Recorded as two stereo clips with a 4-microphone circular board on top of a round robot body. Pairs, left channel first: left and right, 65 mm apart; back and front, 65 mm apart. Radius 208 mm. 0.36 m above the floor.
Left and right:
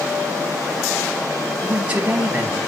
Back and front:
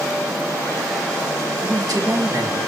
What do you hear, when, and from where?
1.6 s a man speaking: 15° right, 3.5 m